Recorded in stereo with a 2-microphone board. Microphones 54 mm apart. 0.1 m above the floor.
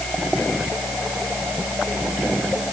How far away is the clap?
I don't hear a clap.